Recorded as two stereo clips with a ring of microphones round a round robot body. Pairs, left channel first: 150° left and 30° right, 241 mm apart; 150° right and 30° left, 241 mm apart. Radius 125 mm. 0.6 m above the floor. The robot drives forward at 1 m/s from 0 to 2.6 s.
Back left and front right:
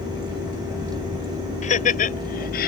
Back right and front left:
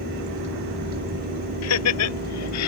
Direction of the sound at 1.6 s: 150° right.